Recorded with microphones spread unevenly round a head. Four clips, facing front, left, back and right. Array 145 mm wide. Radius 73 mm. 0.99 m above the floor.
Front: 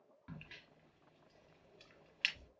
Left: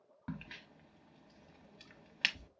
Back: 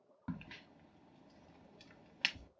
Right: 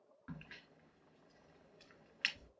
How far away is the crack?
About 0.8 m.